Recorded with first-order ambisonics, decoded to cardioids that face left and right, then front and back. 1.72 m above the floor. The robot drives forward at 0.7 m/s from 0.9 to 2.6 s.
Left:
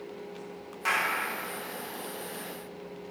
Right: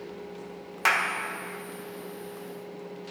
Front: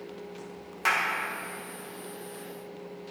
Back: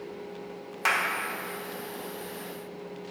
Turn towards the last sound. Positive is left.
turn(degrees=-155)